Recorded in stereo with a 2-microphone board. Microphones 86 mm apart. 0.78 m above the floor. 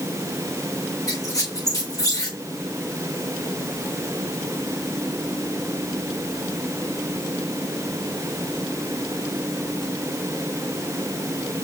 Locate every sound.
1.1 s a squeak: 45° left (ahead or behind), 4.5 m